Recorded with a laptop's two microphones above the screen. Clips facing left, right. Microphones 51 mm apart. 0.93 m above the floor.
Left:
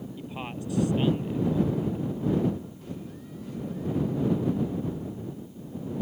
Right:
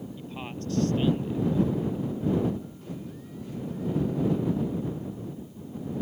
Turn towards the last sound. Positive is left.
turn(degrees=15)  # may be behind; listen again after turning